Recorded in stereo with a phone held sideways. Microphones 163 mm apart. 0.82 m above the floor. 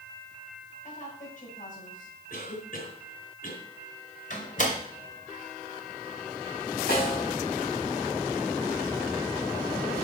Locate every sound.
0.8 s a woman speaking: 55° left (ahead or behind), 6 m
2.3 s a cough: 65° left (ahead or behind), 4 m
4.3 s a door slam: 50° left (ahead or behind), 2.5 m
6.9 s a snare drum: 75° left (ahead or behind), 4.5 m